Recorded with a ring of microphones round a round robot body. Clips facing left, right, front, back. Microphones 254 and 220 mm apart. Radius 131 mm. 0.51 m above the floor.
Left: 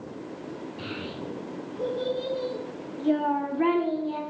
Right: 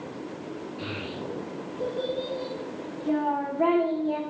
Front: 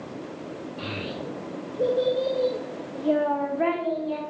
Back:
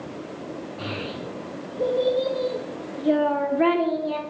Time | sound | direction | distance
0.8 | a child speaking | 45° left | 1.7 m